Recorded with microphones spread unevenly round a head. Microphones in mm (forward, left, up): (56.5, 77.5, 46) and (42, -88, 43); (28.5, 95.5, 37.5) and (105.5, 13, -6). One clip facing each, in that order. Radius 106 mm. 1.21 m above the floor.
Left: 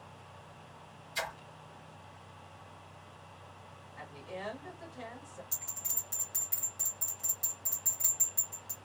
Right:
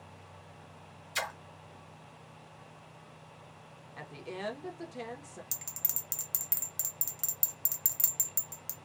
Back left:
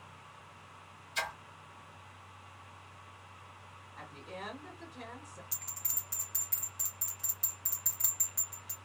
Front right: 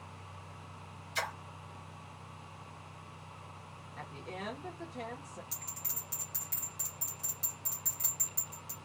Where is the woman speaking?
85° right, 1.2 m.